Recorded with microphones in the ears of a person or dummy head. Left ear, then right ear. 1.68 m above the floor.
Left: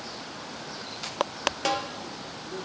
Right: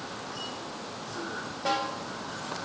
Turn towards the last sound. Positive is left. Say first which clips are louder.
# right 1 dB
turn(degrees=75)  # may be behind; listen again after turning